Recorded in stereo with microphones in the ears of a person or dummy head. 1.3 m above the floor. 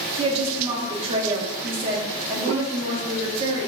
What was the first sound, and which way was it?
A woman speaking, 35° right (ahead or behind).